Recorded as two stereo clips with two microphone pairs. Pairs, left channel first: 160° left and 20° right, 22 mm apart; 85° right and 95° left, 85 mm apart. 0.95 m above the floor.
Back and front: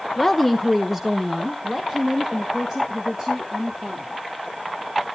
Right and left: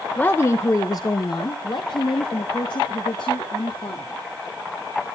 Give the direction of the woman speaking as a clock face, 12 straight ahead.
4 o'clock.